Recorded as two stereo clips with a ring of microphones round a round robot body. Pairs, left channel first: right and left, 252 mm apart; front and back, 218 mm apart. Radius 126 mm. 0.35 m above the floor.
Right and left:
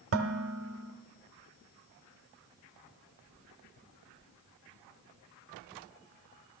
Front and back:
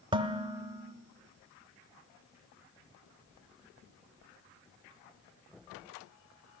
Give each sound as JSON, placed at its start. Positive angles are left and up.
{"t": 0.1, "sound": "dishes clattering", "azimuth_deg": 115, "distance_m": 1.1}